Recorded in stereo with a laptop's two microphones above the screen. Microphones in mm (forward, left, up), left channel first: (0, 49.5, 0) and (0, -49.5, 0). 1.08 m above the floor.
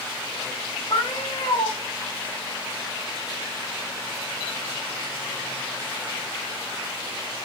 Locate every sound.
0.9 s a cat meowing: 70° left (ahead or behind), 1.7 m